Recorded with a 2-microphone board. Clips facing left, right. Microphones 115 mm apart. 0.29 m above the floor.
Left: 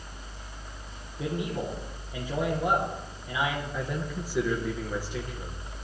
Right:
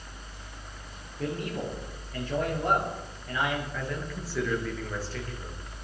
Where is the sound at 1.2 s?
10° left (ahead or behind), 6 m.